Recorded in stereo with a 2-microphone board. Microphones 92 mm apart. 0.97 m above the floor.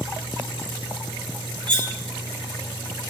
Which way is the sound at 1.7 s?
60° right (ahead or behind).